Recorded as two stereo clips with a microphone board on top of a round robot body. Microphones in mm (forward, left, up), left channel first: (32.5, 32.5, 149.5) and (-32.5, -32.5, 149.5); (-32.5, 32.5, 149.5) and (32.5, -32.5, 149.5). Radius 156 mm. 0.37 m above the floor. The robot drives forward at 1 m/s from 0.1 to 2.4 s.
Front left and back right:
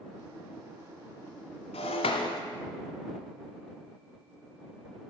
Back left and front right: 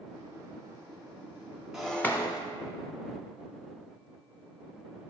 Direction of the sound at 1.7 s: 40° left.